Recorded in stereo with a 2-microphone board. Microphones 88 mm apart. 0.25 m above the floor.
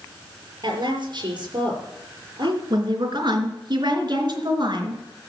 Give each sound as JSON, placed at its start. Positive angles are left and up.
{"t": 0.6, "sound": "a woman speaking", "side_deg": -55, "distance_m": 5.5}
{"t": 2.7, "sound": "a woman speaking", "side_deg": -55, "distance_m": 4.0}